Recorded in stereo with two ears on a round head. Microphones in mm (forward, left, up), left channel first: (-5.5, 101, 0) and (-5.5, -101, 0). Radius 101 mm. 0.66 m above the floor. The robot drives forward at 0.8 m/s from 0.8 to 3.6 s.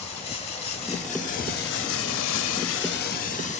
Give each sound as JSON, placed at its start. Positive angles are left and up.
{"t": 0.0, "sound": "running water", "side_deg": 25, "distance_m": 1.4}